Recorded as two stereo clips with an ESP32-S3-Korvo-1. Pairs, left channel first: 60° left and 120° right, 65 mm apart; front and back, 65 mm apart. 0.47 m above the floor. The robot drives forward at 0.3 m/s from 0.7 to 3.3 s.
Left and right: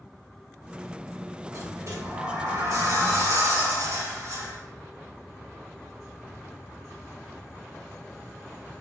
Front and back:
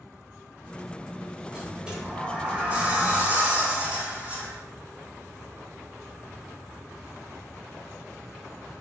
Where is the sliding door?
105° right, 2 m; by 4.6 s 120° right, 2.5 m.